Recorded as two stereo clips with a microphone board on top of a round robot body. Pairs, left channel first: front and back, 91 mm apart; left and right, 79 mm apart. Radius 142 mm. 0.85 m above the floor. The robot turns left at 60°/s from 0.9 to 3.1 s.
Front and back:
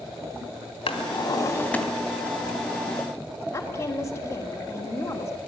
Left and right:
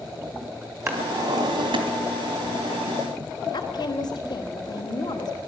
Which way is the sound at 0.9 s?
25° right.